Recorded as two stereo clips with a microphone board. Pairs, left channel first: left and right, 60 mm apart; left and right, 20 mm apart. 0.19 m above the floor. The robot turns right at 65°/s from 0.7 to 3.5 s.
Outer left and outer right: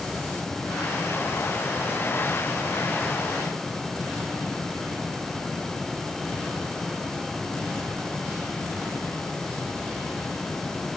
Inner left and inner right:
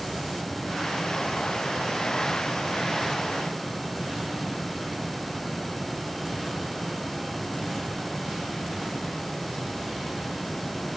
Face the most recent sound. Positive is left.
No sound to turn to.